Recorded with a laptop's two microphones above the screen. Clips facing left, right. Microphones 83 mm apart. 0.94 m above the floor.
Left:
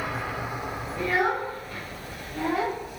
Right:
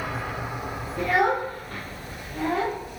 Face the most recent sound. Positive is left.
turn(degrees=10)  # may be behind; listen again after turning